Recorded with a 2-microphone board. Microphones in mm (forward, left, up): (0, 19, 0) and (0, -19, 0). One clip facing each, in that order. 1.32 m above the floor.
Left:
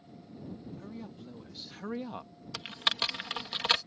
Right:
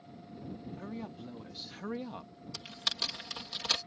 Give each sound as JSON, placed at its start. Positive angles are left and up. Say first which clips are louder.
{"t": 0.8, "sound": "a woman speaking", "louder": "right 2 dB", "side_deg": -25}
{"t": 2.5, "sound": "typing on a keyboard", "louder": "left 6 dB", "side_deg": 40}